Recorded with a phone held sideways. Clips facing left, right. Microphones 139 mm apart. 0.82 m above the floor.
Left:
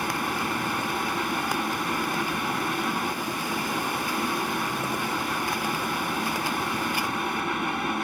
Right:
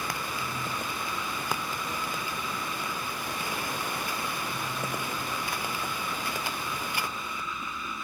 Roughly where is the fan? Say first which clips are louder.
Left 6 dB; left.